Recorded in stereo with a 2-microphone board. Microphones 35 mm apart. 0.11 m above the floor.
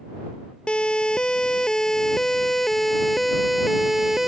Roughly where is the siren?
Left.